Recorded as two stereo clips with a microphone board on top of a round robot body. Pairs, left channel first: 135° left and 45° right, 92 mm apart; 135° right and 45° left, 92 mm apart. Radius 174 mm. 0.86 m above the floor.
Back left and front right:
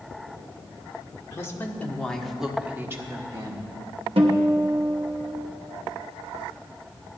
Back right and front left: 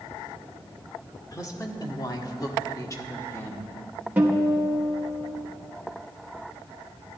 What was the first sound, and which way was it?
A woman speaking, 175° right.